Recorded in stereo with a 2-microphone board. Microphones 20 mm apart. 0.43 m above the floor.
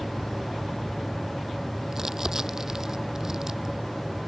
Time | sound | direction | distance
1.9 | crumpling | 25° right (ahead or behind) | ?